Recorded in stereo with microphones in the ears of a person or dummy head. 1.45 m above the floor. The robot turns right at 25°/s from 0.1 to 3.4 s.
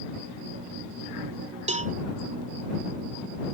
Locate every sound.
1.7 s a cowbell: 30° right (ahead or behind); by 1.9 s 35° right (ahead or behind)